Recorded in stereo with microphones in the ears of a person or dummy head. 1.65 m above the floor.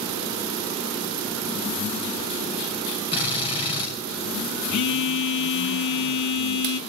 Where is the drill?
25° left (ahead or behind), 7 m.